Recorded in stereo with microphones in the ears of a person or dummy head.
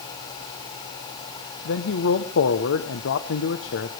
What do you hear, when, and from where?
1.6 s a man speaking: 65° left (ahead or behind), 1.1 m